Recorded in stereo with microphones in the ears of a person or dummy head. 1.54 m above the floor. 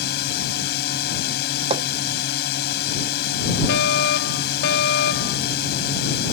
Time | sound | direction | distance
0.0 | a drone | 60° left (ahead or behind) | ?
1.7 | hammering | 35° right (ahead or behind) | ?
3.7 | a fire alarm | 60° left (ahead or behind) | ?